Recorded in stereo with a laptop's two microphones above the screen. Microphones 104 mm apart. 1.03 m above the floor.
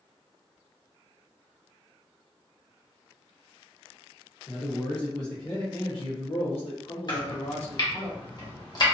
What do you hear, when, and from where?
4.5 s a man speaking: 15° left (ahead or behind), 1.4 m; by 8.1 s 70° left (ahead or behind), 1.3 m
7.1 s chopping: 40° left (ahead or behind), 0.7 m